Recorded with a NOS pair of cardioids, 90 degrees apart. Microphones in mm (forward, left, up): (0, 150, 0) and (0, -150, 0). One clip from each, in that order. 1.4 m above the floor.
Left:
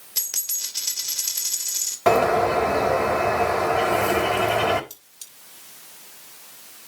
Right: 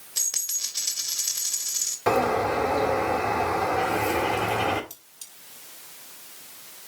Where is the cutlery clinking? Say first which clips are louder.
Left 2 dB; 25° left, 3 m.